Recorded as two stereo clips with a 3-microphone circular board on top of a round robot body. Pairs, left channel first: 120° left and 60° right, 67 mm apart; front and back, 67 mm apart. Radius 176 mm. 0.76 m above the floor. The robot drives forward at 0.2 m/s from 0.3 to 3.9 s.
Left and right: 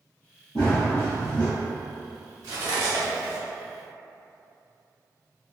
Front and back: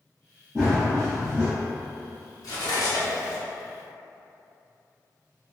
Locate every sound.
0.6 s running footsteps: 105° left, 0.9 m; by 1.5 s 120° left, 1.0 m
2.4 s cutlery clinking: 30° right, 1.0 m; by 3.4 s 35° right, 0.9 m